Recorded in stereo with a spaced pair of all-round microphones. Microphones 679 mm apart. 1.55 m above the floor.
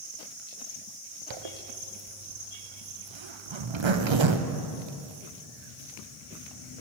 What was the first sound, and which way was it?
A zipper, 45° right (ahead or behind).